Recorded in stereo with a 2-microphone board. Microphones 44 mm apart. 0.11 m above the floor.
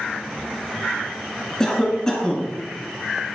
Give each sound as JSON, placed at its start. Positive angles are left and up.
{"t": 1.6, "sound": "a cough", "side_deg": 15, "distance_m": 1.1}